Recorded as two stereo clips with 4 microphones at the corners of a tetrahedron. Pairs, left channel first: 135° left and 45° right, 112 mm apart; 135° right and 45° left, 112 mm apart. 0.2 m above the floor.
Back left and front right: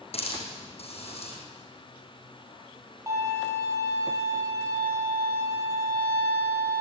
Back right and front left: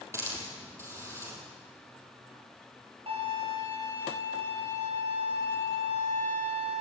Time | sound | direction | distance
0.1 | a hiss | 110° left | 5.5 m
3.1 | a violin | 15° left | 5.5 m